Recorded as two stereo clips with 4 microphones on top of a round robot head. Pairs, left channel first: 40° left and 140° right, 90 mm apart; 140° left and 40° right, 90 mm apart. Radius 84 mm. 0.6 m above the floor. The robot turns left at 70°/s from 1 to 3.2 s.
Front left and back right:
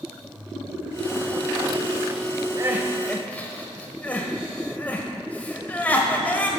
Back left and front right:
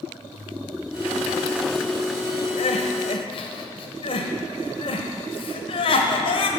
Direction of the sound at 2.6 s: 155° left.